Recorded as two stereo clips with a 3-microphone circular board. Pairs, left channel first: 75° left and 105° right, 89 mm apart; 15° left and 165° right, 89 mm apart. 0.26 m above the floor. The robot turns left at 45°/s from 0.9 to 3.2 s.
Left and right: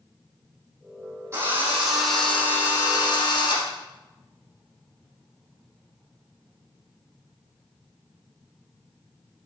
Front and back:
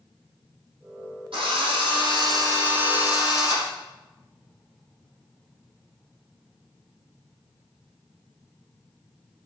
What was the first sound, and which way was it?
A drill, 160° right.